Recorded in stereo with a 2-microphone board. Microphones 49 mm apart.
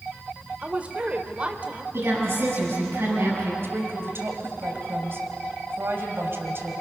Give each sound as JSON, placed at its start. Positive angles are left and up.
{"t": 0.6, "sound": "a woman speaking", "side_deg": -30, "distance_m": 1.5}
{"t": 1.9, "sound": "a woman speaking", "side_deg": -55, "distance_m": 7.5}
{"t": 3.6, "sound": "a woman speaking", "side_deg": -50, "distance_m": 2.5}